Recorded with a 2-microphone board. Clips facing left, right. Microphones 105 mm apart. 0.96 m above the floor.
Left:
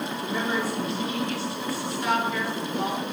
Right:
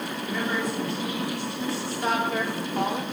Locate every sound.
0.2 s a woman speaking: 25° left (ahead or behind), 3 m; by 3.0 s 60° right (ahead or behind), 3.5 m